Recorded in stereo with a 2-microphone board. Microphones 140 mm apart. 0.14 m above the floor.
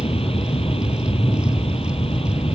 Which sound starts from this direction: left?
An aircraft, at 0.0 s.